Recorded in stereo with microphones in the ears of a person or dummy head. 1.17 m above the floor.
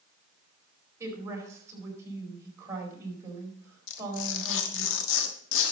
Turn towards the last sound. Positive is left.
turn(degrees=70)  # may be behind; listen again after turning